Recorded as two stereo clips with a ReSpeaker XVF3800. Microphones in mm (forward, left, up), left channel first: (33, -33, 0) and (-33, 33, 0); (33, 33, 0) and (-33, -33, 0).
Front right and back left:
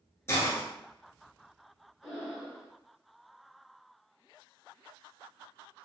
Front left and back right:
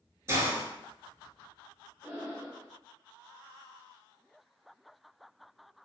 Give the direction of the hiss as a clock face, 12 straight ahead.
3 o'clock.